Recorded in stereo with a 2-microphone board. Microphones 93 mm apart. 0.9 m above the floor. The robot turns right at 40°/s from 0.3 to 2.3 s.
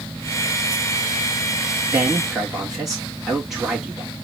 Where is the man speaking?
20° right (ahead or behind), 1.7 m; by 4.1 s 5° right (ahead or behind), 1.7 m.